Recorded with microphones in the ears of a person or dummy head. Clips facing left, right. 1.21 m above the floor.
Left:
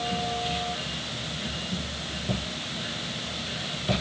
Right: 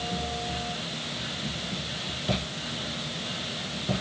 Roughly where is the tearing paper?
I don't hear tearing paper.